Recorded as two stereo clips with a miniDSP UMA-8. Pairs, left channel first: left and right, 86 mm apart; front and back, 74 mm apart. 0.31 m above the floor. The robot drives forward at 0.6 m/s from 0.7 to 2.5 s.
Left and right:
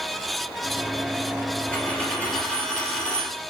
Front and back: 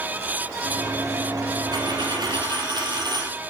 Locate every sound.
1.7 s a dropped coin: 165° left, 1.7 m; by 3.4 s 170° left, 2 m